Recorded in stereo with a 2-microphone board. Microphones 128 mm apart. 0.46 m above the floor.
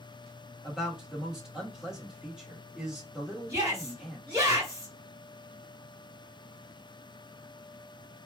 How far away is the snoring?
No snoring in this recording.